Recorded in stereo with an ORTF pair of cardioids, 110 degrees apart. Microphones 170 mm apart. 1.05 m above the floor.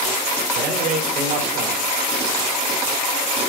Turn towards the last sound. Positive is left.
turn(degrees=-65)